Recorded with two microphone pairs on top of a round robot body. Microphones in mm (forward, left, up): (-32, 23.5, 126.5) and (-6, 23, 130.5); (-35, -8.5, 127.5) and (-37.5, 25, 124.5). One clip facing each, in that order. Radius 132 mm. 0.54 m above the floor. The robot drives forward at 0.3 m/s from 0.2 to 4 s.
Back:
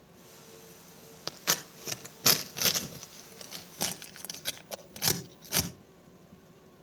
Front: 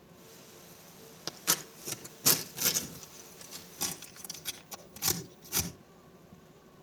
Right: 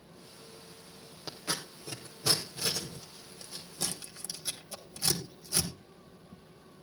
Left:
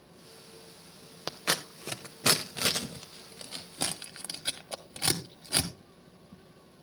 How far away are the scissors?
About 0.9 m.